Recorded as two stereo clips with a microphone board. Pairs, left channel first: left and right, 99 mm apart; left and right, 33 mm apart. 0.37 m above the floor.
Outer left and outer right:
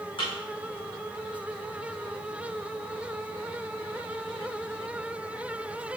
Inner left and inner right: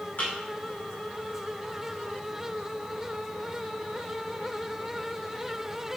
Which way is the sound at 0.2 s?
50° left (ahead or behind).